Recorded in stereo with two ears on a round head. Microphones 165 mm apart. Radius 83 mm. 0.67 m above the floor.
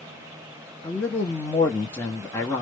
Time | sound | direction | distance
0.8 | a man speaking | 10° left (ahead or behind) | 0.7 m